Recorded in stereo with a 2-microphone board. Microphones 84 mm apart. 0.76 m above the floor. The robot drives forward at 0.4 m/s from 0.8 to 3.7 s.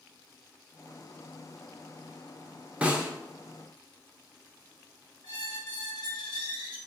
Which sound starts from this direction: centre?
A snare drum, at 2.8 s.